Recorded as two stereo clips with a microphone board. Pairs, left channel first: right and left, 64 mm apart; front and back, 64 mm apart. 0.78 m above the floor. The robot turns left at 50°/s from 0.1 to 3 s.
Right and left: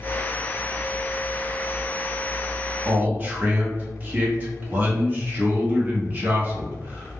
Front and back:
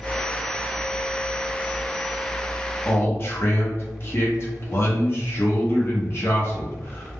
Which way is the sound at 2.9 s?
45° left.